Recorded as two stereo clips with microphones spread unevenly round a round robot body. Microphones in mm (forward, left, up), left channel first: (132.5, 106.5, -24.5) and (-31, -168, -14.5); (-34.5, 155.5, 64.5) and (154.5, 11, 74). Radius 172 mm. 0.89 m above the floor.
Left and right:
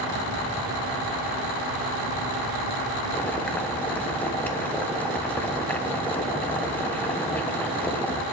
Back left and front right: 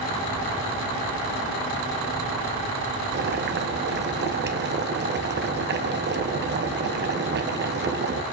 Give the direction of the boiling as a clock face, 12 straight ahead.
1 o'clock.